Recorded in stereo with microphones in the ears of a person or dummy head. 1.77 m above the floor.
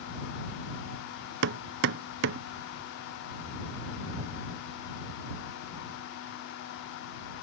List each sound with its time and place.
1.4 s hammering: 65° right (ahead or behind)